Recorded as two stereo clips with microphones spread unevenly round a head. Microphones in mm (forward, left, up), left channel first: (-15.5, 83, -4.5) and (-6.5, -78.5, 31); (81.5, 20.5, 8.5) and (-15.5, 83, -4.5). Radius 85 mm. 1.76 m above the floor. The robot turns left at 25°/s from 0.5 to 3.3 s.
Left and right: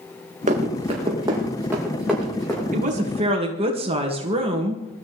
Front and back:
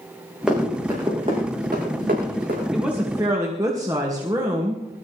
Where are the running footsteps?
125° right, 6 m; by 2.6 s 170° left, 7 m.